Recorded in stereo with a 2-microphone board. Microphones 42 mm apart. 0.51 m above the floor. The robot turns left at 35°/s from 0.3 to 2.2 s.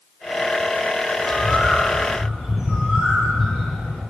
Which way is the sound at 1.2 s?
30° left.